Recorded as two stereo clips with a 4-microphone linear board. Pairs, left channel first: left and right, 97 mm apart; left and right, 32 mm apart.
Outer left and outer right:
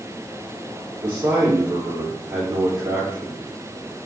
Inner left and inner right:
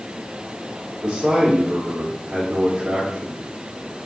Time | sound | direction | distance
1.0 | a man speaking | 20° right (ahead or behind) | 3 m